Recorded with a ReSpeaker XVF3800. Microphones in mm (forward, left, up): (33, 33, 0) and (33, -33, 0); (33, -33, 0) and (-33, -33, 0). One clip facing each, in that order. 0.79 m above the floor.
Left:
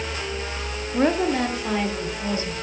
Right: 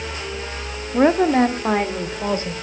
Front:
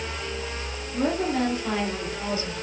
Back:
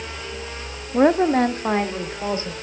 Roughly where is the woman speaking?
Behind right.